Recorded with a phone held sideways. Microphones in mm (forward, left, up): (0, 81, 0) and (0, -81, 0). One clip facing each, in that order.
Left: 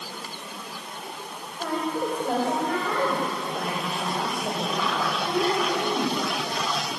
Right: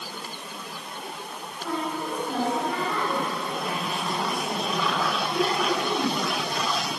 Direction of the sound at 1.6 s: 65° left (ahead or behind).